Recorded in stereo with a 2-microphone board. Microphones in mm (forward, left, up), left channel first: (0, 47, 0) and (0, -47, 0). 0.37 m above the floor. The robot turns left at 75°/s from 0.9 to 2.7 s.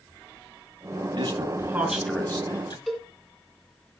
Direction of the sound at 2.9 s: Centre (ahead or behind).